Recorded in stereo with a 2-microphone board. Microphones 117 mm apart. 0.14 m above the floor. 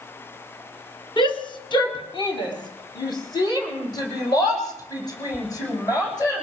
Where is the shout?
40° left (ahead or behind), 3 m; by 6.5 s 30° left (ahead or behind), 9 m.